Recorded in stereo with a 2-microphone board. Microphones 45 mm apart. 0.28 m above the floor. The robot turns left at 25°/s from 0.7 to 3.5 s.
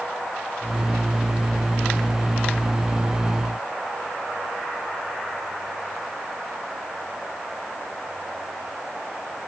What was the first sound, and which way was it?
Only background noise.